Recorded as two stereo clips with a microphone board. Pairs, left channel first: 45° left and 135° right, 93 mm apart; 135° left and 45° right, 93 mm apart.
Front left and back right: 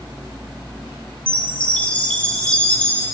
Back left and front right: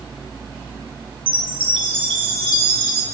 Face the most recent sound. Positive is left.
turn(degrees=-30)